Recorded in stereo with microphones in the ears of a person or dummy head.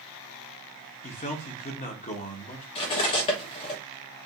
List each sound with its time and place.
1.0 s a man speaking: 35° left (ahead or behind), 1.0 m
2.8 s cutlery clinking: 25° left (ahead or behind), 1.1 m